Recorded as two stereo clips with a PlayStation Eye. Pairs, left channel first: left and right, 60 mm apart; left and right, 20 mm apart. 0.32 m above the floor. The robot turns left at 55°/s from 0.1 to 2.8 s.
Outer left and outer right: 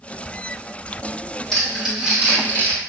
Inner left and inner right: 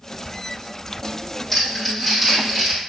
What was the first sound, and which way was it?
Crumpling, 10° left (ahead or behind).